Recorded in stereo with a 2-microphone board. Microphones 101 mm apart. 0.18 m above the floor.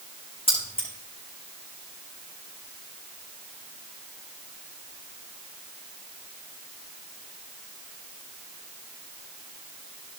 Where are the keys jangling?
75° left (ahead or behind), 9.5 m.